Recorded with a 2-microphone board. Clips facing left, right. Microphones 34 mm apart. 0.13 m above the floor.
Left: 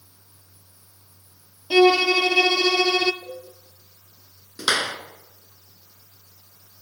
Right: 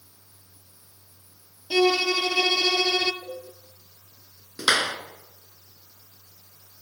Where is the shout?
I don't hear a shout.